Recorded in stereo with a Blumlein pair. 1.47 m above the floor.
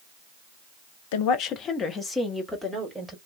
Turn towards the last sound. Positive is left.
turn(degrees=0)